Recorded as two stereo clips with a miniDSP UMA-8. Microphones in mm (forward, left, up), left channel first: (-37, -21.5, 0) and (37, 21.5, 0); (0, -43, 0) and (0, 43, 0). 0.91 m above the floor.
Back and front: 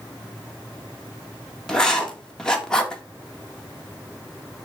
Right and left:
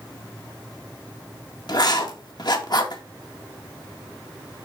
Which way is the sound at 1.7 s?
70° right.